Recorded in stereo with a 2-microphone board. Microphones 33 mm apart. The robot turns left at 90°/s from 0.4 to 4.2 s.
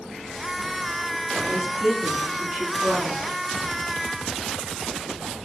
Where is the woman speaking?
5° right, 1.8 m; by 3.2 s 165° right, 1.8 m.